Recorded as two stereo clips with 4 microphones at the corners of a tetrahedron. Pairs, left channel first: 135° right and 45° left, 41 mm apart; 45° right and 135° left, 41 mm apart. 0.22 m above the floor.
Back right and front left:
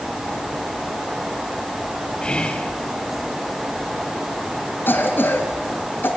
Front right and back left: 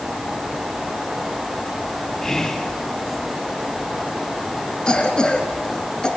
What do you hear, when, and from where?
2.2 s whispering: 115° right, 1.1 m
4.9 s a cough: 115° right, 2.5 m